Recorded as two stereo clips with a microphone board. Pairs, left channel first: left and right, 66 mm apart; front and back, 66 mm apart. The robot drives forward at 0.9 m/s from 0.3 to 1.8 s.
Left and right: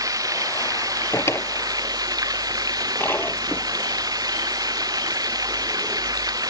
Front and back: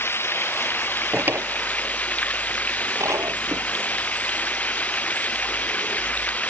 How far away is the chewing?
I don't hear chewing.